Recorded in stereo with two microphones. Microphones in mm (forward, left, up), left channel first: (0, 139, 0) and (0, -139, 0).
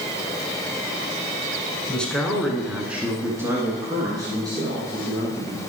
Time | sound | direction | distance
1.9 | a man speaking | 5° left (ahead or behind) | 1.5 m